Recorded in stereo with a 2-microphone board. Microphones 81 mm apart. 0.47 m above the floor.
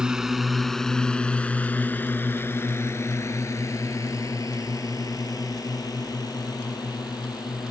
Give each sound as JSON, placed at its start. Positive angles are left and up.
{"t": 0.0, "sound": "a drone", "side_deg": -10}